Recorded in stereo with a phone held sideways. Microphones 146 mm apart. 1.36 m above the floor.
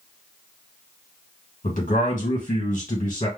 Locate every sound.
1.6 s a man speaking: 65° left (ahead or behind), 1.6 m